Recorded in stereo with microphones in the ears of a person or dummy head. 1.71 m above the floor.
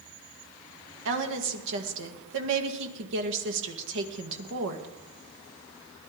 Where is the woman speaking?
70° right (ahead or behind), 2 m.